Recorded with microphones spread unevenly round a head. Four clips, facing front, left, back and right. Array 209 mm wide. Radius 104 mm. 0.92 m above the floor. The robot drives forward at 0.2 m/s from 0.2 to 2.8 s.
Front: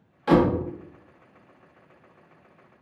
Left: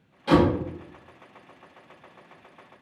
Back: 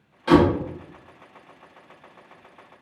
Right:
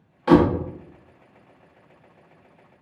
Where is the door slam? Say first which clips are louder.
Right 4 dB, back 3 dB; 95° right, 0.9 m; by 0.6 s 100° right, 1.0 m.